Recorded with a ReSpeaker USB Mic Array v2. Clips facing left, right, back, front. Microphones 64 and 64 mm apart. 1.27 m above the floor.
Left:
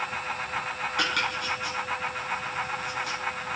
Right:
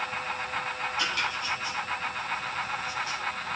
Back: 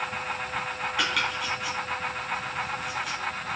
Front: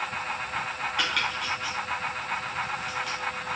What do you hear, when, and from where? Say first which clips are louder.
1.0 s chopping: left 4 dB, back 1 dB; 90° left, 4.5 m